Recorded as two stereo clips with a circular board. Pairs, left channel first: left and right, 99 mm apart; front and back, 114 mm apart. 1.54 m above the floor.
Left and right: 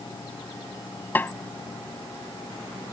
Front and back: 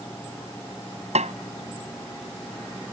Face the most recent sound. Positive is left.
turn(degrees=160)